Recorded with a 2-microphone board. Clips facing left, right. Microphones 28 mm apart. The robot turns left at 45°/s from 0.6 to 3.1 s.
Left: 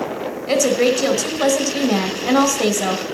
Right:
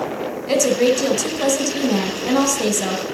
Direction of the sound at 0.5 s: 15° left (ahead or behind).